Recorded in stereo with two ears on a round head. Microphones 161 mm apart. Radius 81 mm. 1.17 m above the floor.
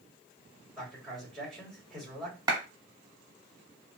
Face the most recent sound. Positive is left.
turn(degrees=-25)  # may be behind; listen again after turning